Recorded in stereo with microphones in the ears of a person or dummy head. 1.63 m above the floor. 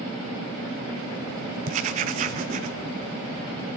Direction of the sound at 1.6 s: 40° right (ahead or behind).